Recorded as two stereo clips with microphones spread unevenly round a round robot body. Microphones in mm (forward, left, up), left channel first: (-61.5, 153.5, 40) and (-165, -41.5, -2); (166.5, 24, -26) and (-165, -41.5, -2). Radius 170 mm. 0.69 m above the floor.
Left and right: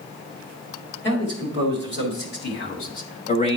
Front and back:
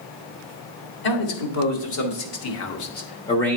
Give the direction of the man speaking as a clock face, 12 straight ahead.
12 o'clock.